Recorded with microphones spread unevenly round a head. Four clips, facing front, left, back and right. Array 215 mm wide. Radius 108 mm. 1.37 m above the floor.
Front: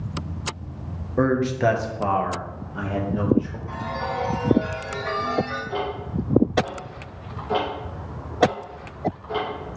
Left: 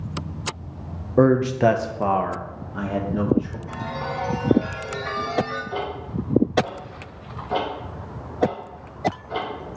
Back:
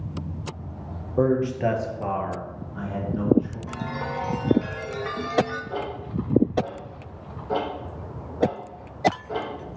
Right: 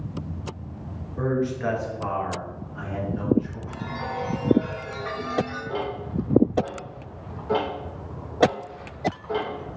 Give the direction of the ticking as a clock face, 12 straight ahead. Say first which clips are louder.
Even, front 3 dB; 3 o'clock.